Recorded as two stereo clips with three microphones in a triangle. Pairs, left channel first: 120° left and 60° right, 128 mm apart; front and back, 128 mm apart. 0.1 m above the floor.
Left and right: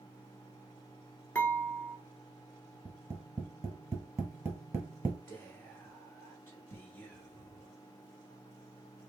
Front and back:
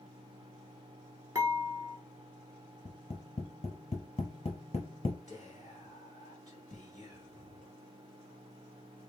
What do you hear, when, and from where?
1.4 s dishes clattering: 175° left, 0.8 m
2.9 s tapping: straight ahead, 1.1 m
5.3 s whispering: 170° left, 1.5 m